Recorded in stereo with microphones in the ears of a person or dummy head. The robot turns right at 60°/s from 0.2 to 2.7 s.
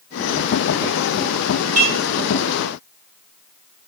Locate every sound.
1.8 s dishes clattering: 35° right (ahead or behind), 1.8 m; by 2.0 s 25° right (ahead or behind), 1.8 m